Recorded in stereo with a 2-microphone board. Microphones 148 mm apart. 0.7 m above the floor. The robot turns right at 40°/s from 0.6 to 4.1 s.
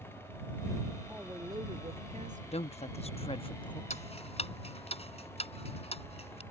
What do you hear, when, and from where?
1.1 s a woman speaking: 170° right; by 2.4 s 120° right
2.5 s a woman speaking: 80° left; by 3.8 s 135° left
3.9 s ticking: 55° left (ahead or behind); by 6.4 s 45° left (ahead or behind)